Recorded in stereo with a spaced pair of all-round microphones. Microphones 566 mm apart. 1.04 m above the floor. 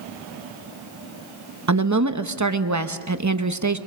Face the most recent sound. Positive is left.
turn(degrees=-30)  # may be behind; listen again after turning